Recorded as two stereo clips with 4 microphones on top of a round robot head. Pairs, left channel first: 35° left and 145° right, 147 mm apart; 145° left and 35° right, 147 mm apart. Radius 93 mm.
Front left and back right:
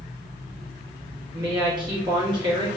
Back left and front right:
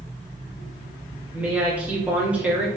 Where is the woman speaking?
110° right, 1.5 m.